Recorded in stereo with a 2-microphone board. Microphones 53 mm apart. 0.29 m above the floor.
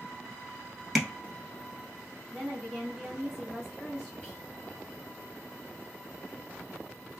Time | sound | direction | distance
0.9 | tapping | centre (ahead or behind) | 1.1 m
2.3 | a woman speaking | centre (ahead or behind) | 1.7 m
4.2 | whispering | 10° left (ahead or behind) | 2 m